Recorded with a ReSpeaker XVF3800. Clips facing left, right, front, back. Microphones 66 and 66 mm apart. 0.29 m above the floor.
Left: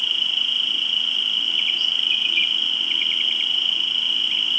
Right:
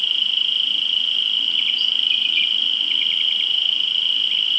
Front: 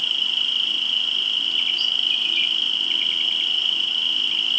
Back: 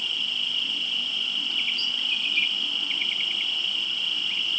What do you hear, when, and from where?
0.0 s an insect: 165° left, 2.5 m